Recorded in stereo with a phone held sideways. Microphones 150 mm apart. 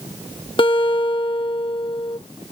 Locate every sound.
0.6 s a guitar: 35° left (ahead or behind)